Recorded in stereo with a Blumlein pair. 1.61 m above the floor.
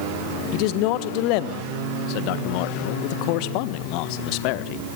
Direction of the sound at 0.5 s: 45° left.